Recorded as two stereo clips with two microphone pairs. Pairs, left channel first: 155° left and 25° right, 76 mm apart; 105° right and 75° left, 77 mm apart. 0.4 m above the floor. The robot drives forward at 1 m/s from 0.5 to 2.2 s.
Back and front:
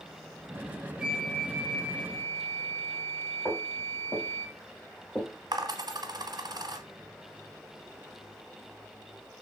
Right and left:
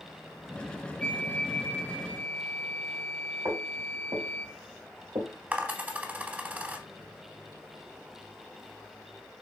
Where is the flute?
75° right, 1.0 m; by 4.5 s 160° right, 1.5 m.